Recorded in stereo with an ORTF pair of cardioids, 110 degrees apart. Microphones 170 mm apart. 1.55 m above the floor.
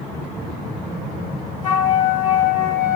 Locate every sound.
1.6 s a flute: 50° left, 1.7 m